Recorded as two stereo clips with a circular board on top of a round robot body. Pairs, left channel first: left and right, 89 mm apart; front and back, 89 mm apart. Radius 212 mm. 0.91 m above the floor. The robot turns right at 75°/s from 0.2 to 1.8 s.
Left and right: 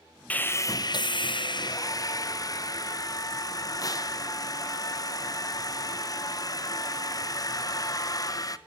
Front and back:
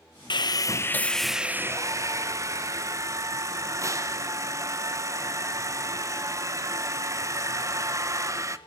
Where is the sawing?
20° left, 1.3 m; by 8.6 s 130° left, 1.3 m.